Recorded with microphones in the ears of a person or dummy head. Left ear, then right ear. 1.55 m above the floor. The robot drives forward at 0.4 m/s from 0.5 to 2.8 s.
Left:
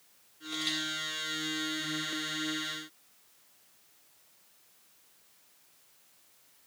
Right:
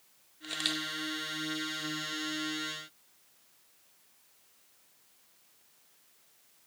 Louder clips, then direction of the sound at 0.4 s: Even; 40° right (ahead or behind).